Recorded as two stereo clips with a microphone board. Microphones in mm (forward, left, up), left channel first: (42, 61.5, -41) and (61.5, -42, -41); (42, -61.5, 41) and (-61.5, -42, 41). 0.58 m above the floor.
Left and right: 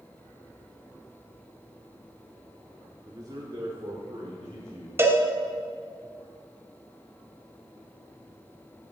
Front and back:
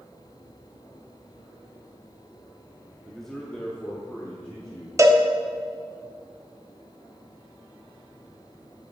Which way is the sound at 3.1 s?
100° right.